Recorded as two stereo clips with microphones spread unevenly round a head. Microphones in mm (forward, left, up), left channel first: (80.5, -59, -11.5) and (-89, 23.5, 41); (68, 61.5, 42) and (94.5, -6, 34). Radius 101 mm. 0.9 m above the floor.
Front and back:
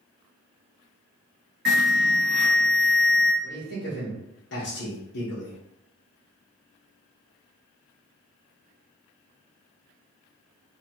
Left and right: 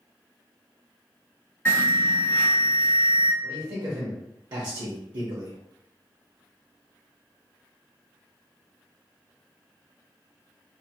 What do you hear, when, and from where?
1.6 s an alarm: 175° right, 1.7 m
3.4 s a man speaking: 45° right, 1.1 m